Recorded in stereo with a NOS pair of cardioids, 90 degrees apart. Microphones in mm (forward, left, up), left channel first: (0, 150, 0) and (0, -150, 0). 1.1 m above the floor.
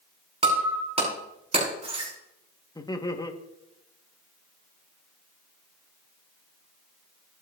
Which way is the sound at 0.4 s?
20° right.